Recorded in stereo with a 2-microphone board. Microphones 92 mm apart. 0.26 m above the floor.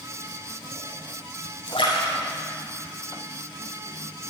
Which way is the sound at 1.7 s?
80° left.